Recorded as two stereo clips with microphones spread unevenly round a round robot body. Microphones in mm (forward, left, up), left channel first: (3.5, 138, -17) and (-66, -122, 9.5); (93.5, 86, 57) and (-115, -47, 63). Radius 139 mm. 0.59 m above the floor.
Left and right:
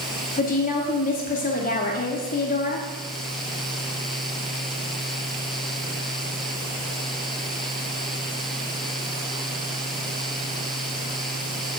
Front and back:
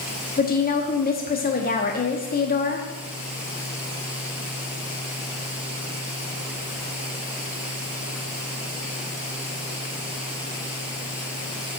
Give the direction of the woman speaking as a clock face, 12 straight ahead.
10 o'clock.